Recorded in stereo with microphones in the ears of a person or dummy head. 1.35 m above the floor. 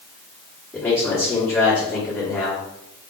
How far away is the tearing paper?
I don't hear tearing paper.